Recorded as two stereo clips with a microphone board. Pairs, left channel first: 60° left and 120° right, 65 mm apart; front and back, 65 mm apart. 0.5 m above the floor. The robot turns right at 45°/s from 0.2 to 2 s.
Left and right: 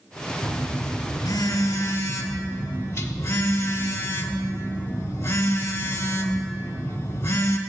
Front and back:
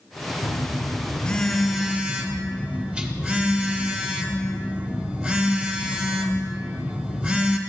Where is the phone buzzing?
40° left, 0.7 m; by 7.6 s 110° left, 0.7 m.